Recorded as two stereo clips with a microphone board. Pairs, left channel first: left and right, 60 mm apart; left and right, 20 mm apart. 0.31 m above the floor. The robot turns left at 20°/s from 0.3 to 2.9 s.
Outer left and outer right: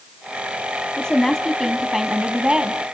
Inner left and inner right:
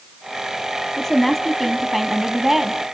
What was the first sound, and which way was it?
A woman speaking, 20° left.